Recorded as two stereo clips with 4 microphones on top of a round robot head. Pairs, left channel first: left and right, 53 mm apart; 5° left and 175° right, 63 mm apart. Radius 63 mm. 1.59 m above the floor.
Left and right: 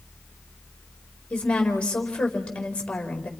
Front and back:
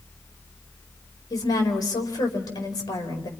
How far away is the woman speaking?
About 5 m.